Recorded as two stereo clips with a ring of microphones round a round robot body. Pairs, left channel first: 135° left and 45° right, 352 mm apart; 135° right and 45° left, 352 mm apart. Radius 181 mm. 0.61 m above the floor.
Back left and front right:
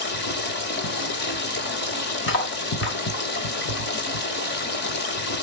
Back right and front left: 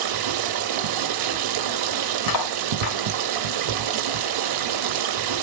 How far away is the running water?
About 1.7 m.